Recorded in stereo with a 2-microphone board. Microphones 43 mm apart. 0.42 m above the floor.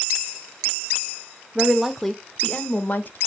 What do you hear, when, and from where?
1.6 s a woman speaking: 15° right (ahead or behind), 0.8 m; by 3.2 s 45° left (ahead or behind), 1.1 m